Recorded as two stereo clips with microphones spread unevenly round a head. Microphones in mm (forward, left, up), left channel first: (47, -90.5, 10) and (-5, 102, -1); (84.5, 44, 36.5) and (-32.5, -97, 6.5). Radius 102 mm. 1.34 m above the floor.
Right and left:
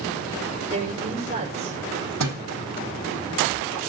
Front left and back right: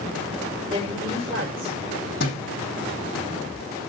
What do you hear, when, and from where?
0.7 s a woman speaking: 165° left, 6.5 m
2.2 s a thud: 90° left, 4.5 m